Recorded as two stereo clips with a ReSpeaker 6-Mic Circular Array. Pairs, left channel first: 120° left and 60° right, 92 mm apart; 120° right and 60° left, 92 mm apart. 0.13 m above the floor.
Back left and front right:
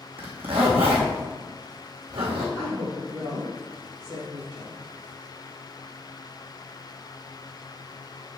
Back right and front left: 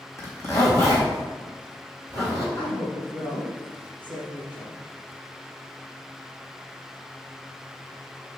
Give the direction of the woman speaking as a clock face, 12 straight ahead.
3 o'clock.